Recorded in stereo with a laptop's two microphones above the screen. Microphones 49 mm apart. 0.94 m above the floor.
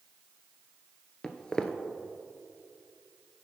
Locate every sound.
1.2 s footsteps: 15° left (ahead or behind), 0.9 m